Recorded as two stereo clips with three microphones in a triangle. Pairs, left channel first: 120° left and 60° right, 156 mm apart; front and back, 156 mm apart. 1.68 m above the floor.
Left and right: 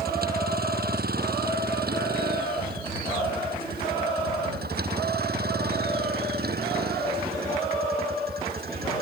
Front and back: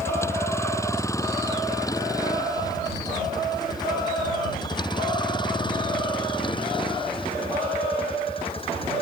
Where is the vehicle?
75° right; by 9.0 s 55° right.